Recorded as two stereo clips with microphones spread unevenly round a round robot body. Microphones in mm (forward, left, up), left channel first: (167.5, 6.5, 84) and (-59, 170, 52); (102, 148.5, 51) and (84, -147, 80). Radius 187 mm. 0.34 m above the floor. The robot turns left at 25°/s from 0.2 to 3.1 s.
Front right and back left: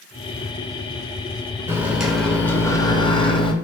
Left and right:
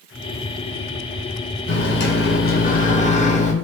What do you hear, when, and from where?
1.7 s a microwave: 75° left, 0.8 m; by 3.5 s 40° left, 0.8 m